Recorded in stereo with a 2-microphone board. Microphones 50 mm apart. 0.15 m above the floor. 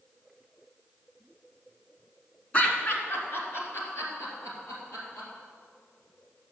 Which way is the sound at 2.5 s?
30° left (ahead or behind).